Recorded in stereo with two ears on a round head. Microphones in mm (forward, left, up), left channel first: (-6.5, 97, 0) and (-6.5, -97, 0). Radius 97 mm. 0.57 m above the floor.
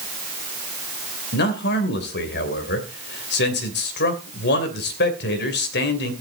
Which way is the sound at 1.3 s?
50° left (ahead or behind).